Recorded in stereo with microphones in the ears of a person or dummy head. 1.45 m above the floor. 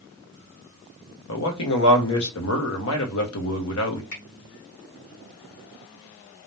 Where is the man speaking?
80° left, 1.3 m.